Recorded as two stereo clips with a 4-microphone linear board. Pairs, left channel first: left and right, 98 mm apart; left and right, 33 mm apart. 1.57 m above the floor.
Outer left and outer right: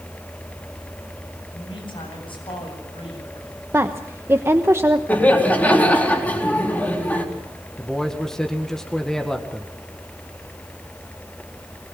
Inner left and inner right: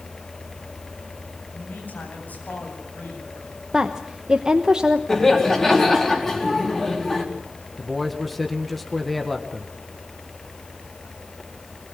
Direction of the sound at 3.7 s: 25° right (ahead or behind).